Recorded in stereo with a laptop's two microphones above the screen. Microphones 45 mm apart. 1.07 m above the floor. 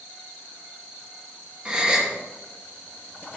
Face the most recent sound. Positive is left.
turn(degrees=-20)  # may be behind; listen again after turning